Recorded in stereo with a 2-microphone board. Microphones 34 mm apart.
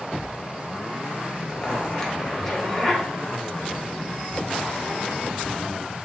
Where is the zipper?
15° left (ahead or behind), 0.8 m.